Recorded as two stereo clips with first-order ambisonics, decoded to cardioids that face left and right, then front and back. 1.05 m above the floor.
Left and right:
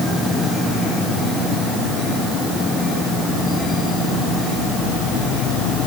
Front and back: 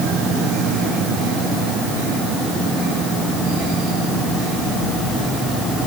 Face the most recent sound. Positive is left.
No sound to turn to.